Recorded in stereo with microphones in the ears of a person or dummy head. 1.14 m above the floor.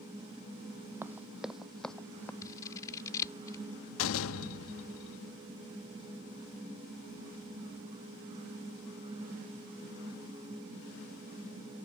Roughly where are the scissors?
Centre.